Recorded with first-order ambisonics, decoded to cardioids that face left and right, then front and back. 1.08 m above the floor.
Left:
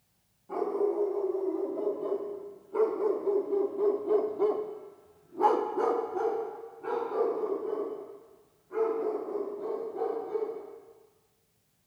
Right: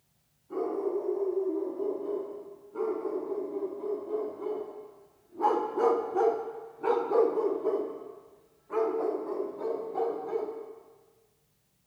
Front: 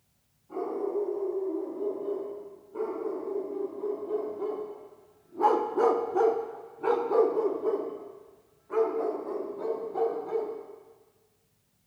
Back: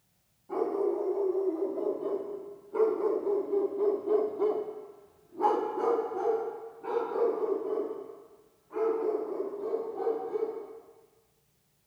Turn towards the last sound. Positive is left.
turn(degrees=-45)